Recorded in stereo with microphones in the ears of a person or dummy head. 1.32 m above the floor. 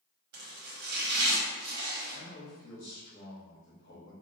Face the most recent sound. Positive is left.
turn(degrees=40)  # may be behind; listen again after turning